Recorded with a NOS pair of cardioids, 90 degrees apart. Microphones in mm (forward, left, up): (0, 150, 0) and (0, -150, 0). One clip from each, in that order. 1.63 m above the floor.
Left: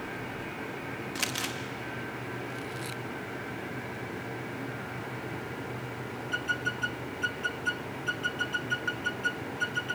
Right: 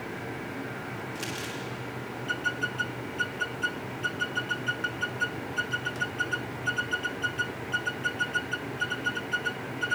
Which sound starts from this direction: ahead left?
Crumpling, at 1.1 s.